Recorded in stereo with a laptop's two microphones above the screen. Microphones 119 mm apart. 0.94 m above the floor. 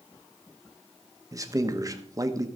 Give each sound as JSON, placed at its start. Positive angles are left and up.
{"t": 1.3, "sound": "a man speaking", "side_deg": -30, "distance_m": 1.1}